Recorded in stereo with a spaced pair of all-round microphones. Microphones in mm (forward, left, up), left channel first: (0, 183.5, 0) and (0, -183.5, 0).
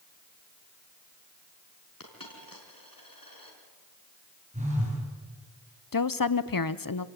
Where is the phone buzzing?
20° right (ahead or behind), 9.5 m.